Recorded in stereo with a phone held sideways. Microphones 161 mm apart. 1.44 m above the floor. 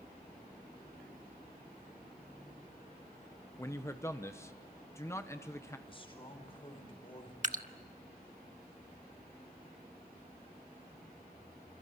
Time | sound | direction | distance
3.6 | a man speaking | 15° left (ahead or behind) | 1.1 m
5.9 | a man speaking | 35° left (ahead or behind) | 5 m
7.4 | dripping | 50° right (ahead or behind) | 1.2 m